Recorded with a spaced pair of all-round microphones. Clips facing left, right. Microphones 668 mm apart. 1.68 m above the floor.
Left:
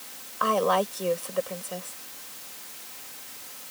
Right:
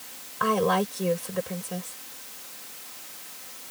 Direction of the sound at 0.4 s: 50° right (ahead or behind).